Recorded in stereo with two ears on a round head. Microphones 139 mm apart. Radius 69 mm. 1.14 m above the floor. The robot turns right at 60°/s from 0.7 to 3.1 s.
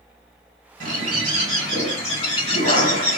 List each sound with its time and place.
0.8 s a bird: 55° right, 2 m; by 3.2 s 80° left, 2 m